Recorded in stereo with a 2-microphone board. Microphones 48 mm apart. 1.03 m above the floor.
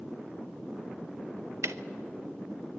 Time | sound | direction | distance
1.6 | ticking | 70° right (ahead or behind) | 0.8 m